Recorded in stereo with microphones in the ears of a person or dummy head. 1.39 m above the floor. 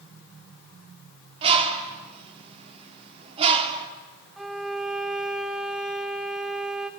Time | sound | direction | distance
1.4 | a bird | 30° right (ahead or behind) | 1.9 m
4.4 | a violin | 5° right (ahead or behind) | 0.9 m